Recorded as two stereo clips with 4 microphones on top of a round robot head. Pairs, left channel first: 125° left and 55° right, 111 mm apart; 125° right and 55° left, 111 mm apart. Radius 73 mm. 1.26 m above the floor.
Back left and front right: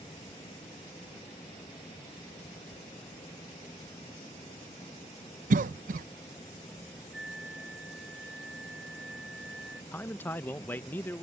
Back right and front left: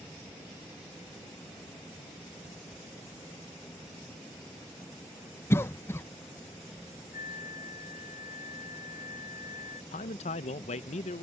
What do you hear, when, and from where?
5.5 s a cough: 60° right
7.1 s a flute: 135° right
9.9 s a man speaking: 160° right